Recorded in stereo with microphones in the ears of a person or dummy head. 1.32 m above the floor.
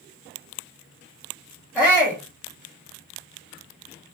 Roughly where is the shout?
Centre.